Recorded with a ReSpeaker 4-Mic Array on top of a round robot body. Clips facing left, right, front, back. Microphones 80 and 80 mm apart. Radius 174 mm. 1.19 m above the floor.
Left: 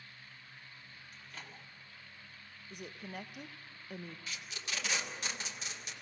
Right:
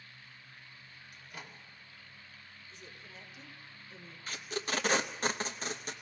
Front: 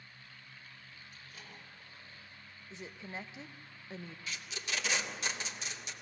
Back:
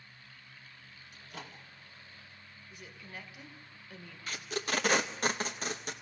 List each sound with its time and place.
1.1 s a microwave: 170° right, 2.5 m
2.7 s a woman speaking: 65° left, 1.3 m
4.3 s tape being pulled: 140° right, 0.7 m